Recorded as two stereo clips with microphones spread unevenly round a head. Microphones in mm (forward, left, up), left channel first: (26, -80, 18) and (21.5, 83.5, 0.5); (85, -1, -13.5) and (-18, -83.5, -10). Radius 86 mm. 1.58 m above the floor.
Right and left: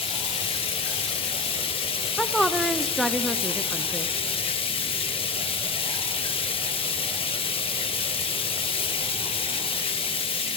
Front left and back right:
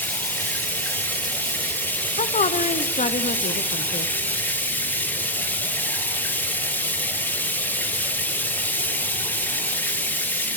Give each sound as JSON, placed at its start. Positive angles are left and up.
{"t": 0.0, "sound": "running water", "azimuth_deg": -35, "distance_m": 1.4}
{"t": 2.2, "sound": "a woman speaking", "azimuth_deg": 0, "distance_m": 0.8}